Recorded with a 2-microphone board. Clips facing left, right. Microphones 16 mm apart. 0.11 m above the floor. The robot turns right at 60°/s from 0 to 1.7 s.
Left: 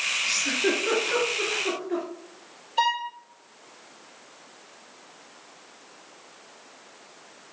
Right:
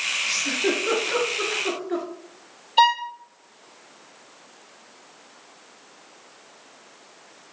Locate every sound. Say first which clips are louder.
0.3 s a giggle: even; 25° left (ahead or behind), 1.4 m; by 2.0 s 20° right (ahead or behind), 1.4 m
2.8 s a violin: right 6 dB; 40° right (ahead or behind), 0.7 m